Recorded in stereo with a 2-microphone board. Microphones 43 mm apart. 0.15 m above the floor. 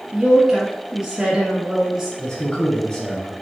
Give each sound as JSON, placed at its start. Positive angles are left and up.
{"t": 0.1, "sound": "a woman speaking", "side_deg": -15, "distance_m": 1.3}
{"t": 2.2, "sound": "a man speaking", "side_deg": 20, "distance_m": 1.3}